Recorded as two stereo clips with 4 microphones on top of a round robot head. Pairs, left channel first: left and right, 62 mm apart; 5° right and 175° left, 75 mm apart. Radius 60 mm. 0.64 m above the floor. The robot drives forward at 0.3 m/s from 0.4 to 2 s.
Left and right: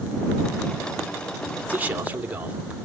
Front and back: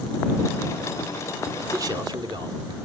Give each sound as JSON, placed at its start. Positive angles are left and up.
{"t": 1.7, "sound": "a man speaking", "azimuth_deg": -155, "distance_m": 2.5}